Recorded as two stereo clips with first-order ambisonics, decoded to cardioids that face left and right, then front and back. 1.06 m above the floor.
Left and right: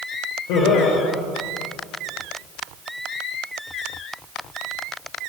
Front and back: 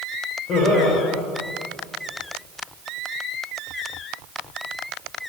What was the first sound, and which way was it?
Laughter, 65° left.